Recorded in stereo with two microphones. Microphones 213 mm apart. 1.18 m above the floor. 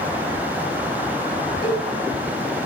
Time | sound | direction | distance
1.6 | a cowbell | 20° left (ahead or behind) | 2.0 m